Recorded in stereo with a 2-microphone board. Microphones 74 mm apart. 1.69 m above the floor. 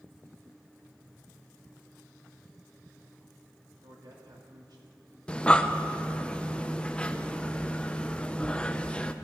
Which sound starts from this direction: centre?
Breathing, at 5.3 s.